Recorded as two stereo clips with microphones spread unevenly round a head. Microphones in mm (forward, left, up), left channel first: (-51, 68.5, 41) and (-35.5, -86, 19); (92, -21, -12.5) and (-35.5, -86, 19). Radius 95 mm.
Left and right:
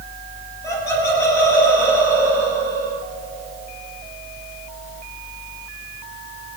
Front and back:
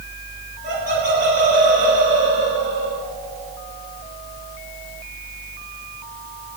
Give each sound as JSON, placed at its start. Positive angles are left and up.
{"t": 0.6, "sound": "laughter", "azimuth_deg": 170, "distance_m": 8.0}